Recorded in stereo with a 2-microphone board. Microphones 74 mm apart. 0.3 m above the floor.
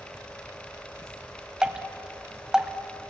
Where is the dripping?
10° right (ahead or behind), 1.3 m.